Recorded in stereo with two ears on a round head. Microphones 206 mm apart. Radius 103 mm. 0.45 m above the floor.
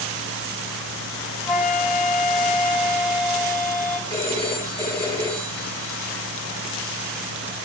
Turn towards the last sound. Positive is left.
turn(degrees=-25)  # may be behind; listen again after turning